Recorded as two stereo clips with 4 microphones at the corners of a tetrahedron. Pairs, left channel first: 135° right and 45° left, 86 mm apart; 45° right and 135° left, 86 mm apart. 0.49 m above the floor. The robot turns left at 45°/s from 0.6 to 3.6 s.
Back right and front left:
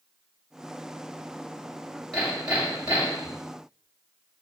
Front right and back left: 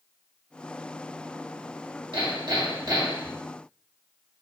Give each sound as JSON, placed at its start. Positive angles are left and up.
{"t": 2.1, "sound": "hammering", "azimuth_deg": 135, "distance_m": 2.5}